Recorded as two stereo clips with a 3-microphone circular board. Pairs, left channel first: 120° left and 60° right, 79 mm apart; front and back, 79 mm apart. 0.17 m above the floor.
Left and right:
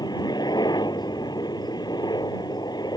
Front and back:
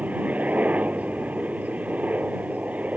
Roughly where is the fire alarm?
No fire alarm in this recording.